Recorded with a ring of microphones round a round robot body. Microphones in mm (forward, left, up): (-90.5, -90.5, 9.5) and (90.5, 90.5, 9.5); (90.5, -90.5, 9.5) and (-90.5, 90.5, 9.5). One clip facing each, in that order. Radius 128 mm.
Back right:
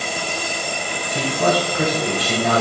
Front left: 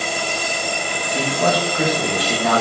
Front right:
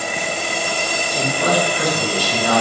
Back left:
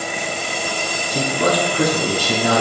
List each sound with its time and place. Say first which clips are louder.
1.1 s a man speaking: back right 1 dB, back left 1 dB; 135° left, 3.5 m